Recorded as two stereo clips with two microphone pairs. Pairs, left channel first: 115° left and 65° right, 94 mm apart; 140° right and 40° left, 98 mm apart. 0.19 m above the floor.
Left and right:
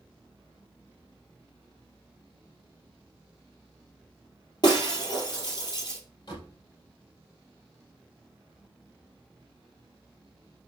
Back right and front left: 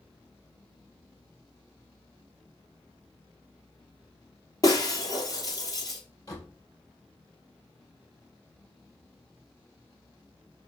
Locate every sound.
4.6 s breaking glass: 165° left, 2 m
6.3 s a door slam: 160° left, 3 m